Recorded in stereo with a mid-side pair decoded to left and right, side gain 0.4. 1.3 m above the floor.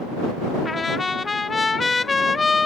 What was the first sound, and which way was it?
A trumpet, 30° left.